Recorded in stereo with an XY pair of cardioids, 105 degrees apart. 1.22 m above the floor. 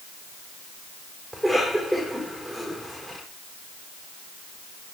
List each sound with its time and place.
1.3 s a cough: 5° right, 5.5 m